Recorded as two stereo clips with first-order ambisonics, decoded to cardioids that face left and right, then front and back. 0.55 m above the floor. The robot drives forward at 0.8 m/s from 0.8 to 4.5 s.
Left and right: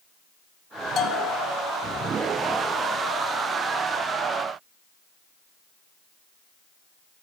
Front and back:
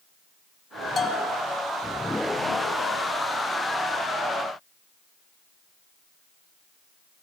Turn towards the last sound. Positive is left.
turn(degrees=165)